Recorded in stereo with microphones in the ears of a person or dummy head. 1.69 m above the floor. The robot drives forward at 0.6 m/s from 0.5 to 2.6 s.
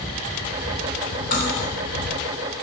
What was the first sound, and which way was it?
Cutlery clinking, 50° left (ahead or behind).